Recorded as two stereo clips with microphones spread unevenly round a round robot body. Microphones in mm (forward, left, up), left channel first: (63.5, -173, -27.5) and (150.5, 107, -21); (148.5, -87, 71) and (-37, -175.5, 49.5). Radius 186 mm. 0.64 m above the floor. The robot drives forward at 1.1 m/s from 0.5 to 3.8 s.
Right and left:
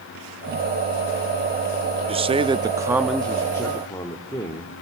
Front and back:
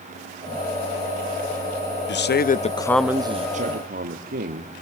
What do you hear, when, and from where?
2.1 s a man speaking: 5° left, 1.1 m; by 4.8 s 175° left, 1.2 m